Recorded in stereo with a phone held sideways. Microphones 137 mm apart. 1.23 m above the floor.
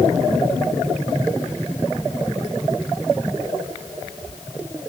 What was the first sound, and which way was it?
Only background noise.